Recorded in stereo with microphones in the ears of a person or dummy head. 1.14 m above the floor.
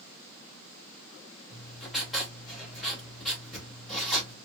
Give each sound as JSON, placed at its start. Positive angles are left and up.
{"t": 1.5, "sound": "writing", "side_deg": 5, "distance_m": 2.5}